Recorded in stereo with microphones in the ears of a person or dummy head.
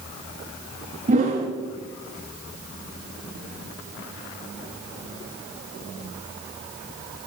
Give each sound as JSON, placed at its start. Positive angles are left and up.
{"t": 1.1, "sound": "a whoosh", "side_deg": -30, "distance_m": 0.6}